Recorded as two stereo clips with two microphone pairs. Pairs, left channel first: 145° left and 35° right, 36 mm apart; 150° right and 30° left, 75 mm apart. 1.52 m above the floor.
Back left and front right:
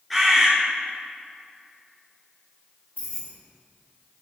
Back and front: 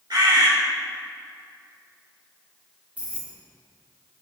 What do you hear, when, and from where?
0.1 s a bird: 50° left, 1.9 m
3.0 s keys jangling: 100° left, 1.7 m